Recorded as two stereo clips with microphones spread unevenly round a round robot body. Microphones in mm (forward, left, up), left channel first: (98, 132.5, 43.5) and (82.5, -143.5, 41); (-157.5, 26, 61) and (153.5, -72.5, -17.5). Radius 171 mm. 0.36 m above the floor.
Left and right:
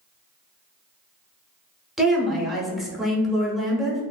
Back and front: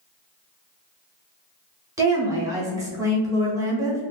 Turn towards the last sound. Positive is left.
turn(degrees=-5)